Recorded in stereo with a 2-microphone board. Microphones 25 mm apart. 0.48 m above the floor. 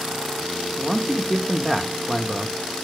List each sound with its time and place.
0.8 s a man speaking: centre (ahead or behind), 1.0 m